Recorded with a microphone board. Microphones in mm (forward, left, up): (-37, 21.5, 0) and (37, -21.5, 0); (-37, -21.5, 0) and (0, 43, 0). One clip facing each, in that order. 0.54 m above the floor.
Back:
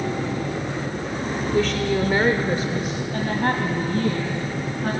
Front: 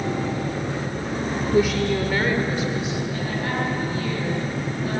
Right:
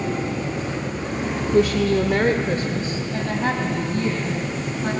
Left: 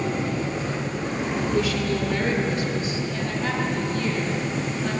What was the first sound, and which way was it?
A woman speaking, 90° right.